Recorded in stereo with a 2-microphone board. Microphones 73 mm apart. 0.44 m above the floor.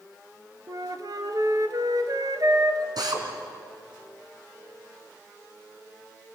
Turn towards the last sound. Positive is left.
turn(degrees=-70)  # may be behind; listen again after turning